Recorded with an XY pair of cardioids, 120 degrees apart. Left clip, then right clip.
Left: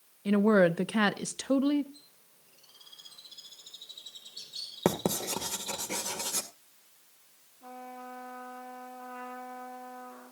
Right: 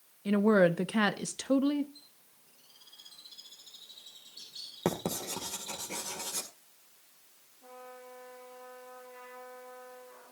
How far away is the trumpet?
About 5.5 m.